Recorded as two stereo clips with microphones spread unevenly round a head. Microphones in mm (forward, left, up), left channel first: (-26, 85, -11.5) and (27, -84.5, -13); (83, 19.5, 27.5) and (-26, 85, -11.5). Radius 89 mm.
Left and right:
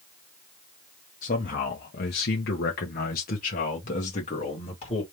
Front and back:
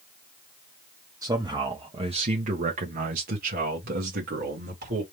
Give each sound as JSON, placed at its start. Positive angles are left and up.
{"t": 1.2, "sound": "a man speaking", "azimuth_deg": 75, "distance_m": 1.0}